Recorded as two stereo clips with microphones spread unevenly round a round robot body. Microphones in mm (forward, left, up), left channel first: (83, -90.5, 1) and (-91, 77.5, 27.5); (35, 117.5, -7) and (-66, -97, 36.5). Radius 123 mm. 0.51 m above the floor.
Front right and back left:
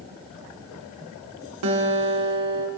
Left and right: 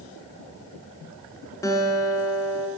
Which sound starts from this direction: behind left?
A guitar, at 1.6 s.